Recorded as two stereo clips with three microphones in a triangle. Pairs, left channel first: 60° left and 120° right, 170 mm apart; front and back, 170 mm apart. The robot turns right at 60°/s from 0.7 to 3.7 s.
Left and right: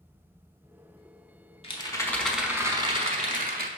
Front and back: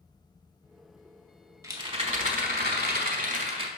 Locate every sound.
1.6 s a rattle: 110° left, 0.8 m; by 3.7 s 130° right, 0.8 m